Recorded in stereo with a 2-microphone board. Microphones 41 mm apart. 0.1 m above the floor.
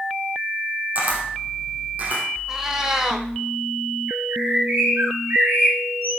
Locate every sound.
0.9 s a camera shutter: 40° right (ahead or behind), 4.5 m
2.5 s a cat meowing: 15° right (ahead or behind), 1.6 m
4.1 s a bird: 55° right (ahead or behind), 3.5 m